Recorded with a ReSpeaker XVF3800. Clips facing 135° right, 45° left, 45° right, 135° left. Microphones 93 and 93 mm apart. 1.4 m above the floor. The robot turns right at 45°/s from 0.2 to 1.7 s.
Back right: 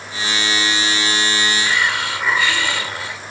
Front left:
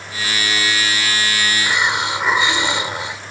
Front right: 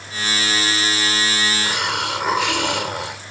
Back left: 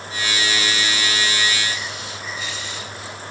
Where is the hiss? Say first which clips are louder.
Front left 1 dB, front right 6 dB; 30° right; by 3.2 s 25° right.